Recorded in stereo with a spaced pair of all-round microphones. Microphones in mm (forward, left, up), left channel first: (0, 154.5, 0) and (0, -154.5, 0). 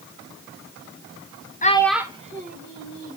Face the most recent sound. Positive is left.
turn(degrees=-35)  # may be behind; listen again after turning